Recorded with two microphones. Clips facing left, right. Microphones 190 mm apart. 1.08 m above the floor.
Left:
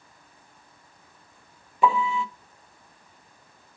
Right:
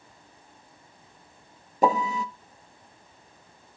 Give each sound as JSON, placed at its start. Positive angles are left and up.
{"t": 1.8, "sound": "a piano", "side_deg": -40, "distance_m": 0.6}